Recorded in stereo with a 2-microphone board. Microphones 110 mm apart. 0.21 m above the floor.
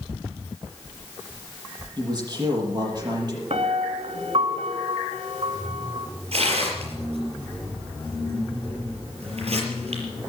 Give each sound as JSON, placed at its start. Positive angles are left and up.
{"t": 2.0, "sound": "a man speaking", "side_deg": -40, "distance_m": 7.0}
{"t": 3.5, "sound": "a piano", "side_deg": -65, "distance_m": 1.0}
{"t": 6.3, "sound": "tearing paper", "side_deg": -65, "distance_m": 5.0}